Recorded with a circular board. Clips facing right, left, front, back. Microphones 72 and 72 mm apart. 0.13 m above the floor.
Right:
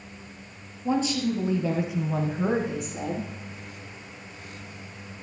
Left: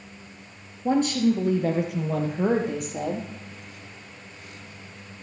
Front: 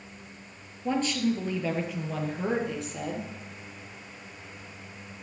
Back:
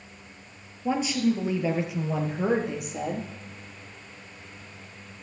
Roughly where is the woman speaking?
Left.